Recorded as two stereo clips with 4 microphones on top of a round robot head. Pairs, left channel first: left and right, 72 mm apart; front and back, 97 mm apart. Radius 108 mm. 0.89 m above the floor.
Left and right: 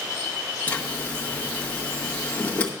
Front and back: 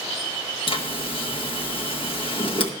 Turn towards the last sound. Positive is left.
turn(degrees=25)